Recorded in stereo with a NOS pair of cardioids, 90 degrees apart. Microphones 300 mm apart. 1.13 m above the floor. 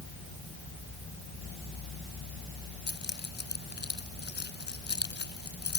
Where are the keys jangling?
35° left.